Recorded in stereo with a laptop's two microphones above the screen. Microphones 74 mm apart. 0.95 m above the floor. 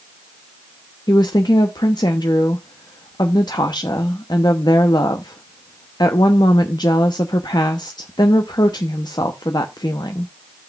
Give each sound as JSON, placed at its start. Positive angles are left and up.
{"t": 1.1, "sound": "a woman speaking", "side_deg": 75, "distance_m": 0.9}